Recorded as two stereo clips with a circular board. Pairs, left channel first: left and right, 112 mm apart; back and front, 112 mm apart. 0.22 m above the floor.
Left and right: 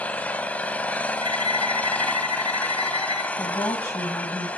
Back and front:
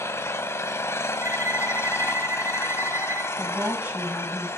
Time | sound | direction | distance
0.0 | an engine running | 150° left | 1.2 m
1.2 | a violin | 65° left | 0.5 m
3.4 | a woman speaking | 60° left | 1.6 m